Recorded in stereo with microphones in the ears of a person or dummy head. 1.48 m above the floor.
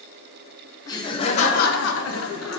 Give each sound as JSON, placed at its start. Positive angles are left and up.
{"t": 0.9, "sound": "laughter", "side_deg": 15, "distance_m": 0.8}